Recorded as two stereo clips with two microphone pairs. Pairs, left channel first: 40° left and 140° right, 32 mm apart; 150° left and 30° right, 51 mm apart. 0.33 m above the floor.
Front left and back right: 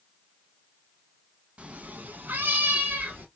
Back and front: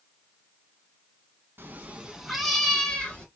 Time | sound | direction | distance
1.6 | a cat meowing | 80° right | 0.5 m